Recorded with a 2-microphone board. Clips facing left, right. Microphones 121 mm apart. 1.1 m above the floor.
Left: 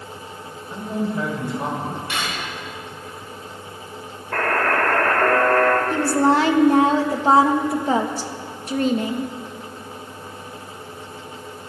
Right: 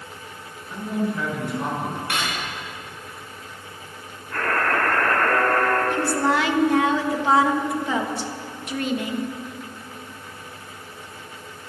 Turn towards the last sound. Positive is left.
turn(degrees=35)  # may be behind; listen again after turning